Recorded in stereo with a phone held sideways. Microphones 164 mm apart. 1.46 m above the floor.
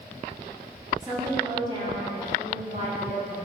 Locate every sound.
1.0 s a woman speaking: 20° right (ahead or behind), 3 m; by 3.4 s 45° right (ahead or behind), 3.5 m